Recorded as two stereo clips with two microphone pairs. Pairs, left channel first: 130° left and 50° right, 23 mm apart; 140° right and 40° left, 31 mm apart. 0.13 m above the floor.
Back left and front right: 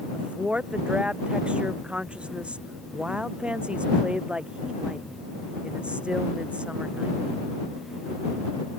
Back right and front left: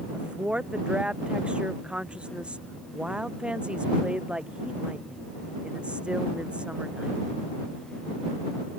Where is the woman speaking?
15° right.